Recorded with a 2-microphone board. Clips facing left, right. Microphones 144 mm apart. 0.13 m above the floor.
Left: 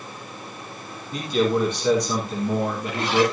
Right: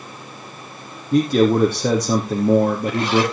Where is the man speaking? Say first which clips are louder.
Right 7 dB; 50° right (ahead or behind), 3 m.